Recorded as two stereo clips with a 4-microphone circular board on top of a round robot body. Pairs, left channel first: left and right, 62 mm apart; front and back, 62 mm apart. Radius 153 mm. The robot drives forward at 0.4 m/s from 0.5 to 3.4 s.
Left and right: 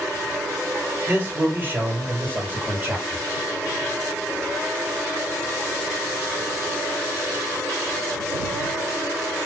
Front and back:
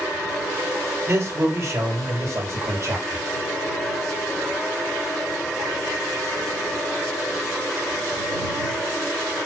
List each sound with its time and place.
1.1 s a man speaking: 140° right, 3 m; by 3.2 s 150° right, 3.5 m